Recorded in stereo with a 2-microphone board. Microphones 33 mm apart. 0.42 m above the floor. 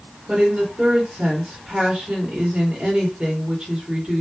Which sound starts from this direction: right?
A woman speaking, at 0.3 s.